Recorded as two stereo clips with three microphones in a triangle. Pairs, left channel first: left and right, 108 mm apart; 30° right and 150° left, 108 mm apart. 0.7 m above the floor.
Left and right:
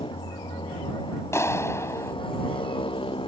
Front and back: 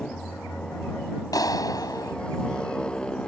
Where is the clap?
25° left.